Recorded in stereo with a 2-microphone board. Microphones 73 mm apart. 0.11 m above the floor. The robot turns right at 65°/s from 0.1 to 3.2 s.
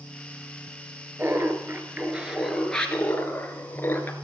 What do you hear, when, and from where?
1.2 s laughter: 85° right, 1.9 m; by 4.1 s 50° left, 1.9 m